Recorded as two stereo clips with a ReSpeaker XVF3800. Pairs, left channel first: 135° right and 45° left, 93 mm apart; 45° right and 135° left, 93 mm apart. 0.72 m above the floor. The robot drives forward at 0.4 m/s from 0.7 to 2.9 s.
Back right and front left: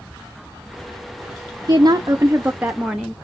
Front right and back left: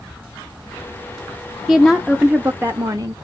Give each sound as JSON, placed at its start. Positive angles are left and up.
{"t": 1.7, "sound": "a woman speaking", "azimuth_deg": 40, "distance_m": 0.6}